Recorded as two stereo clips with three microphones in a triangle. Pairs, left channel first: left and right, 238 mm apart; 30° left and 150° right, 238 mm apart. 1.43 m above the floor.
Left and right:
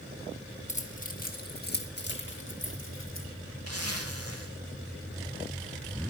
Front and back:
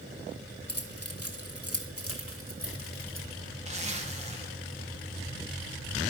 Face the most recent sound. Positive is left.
turn(degrees=-85)